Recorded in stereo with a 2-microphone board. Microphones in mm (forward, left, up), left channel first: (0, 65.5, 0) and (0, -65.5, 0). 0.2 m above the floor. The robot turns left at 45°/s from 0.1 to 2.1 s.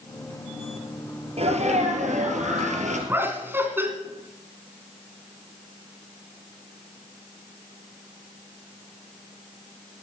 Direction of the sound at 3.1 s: 20° right (ahead or behind).